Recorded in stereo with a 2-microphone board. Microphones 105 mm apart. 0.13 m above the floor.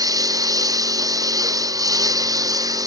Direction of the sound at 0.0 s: 35° right (ahead or behind).